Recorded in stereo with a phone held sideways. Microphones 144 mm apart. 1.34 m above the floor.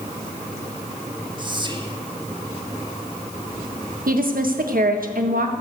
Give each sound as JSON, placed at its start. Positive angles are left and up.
{"t": 1.4, "sound": "whispering", "side_deg": -35, "distance_m": 1.5}
{"t": 4.1, "sound": "a woman speaking", "side_deg": -85, "distance_m": 1.5}